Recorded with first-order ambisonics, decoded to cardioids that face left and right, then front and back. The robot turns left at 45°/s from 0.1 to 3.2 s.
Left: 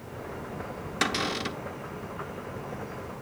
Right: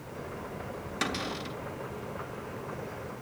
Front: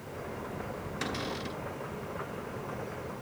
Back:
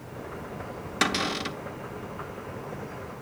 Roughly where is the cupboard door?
Behind.